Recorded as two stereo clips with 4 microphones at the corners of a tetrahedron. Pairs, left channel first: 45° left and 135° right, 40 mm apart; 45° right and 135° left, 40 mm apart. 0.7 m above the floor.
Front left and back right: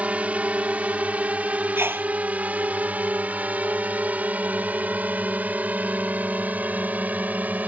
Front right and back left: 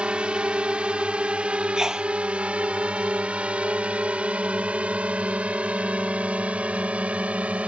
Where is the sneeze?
150° right.